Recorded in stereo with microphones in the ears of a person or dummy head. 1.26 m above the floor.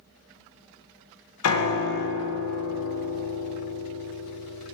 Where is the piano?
80° left, 0.7 m.